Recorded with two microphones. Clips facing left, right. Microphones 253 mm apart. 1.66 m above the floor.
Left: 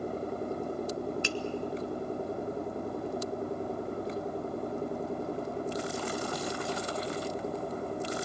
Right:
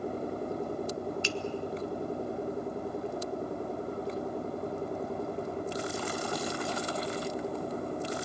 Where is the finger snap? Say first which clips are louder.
Even; 55° left (ahead or behind), 0.9 m.